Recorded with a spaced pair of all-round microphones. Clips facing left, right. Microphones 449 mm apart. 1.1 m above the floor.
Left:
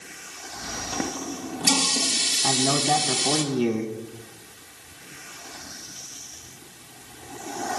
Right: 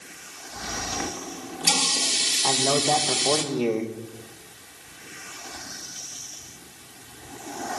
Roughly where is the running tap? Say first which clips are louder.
Left 6 dB; left.